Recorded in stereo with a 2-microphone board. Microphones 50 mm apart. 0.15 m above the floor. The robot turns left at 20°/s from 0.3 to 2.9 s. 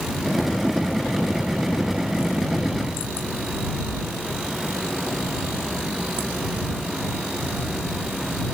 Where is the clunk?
No clunk in this recording.